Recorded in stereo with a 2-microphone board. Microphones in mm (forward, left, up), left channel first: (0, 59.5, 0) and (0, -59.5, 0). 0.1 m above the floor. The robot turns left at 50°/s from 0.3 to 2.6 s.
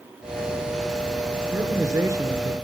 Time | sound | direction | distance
1.5 | a man speaking | 25° right (ahead or behind) | 1.4 m